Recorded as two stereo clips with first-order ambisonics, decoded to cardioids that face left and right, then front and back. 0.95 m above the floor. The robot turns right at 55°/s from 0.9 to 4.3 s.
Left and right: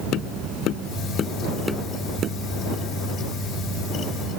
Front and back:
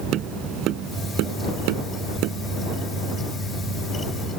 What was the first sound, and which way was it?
Tapping, 135° left.